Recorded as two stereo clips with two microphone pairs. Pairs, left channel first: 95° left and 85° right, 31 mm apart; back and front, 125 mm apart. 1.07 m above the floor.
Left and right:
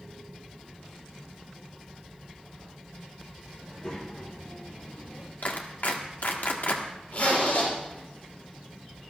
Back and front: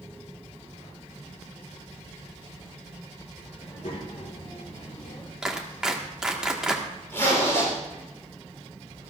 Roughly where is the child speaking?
Behind left.